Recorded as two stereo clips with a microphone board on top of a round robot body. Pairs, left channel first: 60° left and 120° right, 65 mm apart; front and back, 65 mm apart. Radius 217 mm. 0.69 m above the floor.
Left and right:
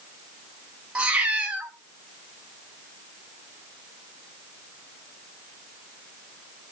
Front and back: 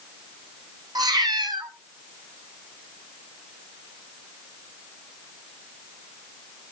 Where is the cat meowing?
165° left, 3 m.